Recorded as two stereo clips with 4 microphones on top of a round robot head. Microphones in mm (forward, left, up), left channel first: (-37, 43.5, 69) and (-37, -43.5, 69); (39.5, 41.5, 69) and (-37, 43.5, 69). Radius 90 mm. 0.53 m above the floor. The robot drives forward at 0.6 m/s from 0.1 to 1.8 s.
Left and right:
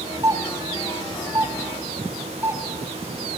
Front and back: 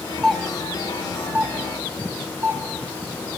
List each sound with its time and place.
0.2 s a doorbell: 85° right, 1.5 m; by 2.6 s 135° right, 1.7 m